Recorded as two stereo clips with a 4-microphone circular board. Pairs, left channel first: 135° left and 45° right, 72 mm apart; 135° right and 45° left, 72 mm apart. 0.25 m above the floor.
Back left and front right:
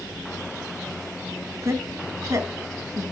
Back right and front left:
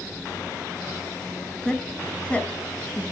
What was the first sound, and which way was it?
A woman speaking, 60° right.